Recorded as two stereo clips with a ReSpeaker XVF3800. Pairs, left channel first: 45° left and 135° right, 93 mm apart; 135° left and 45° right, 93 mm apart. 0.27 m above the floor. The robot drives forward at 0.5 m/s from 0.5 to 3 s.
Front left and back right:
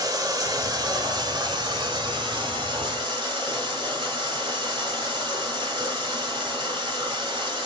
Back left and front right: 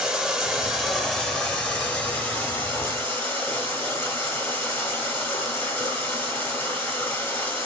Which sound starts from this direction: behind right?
Running water, at 0.0 s.